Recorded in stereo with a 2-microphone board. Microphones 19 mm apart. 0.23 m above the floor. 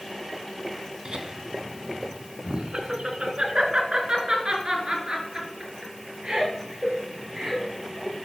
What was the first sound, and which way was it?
Laughter, 55° right (ahead or behind).